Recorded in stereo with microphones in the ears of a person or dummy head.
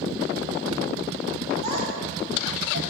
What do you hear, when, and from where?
1.6 s a child speaking: 50° right (ahead or behind), 6 m; by 2.8 s 45° right (ahead or behind), 5.5 m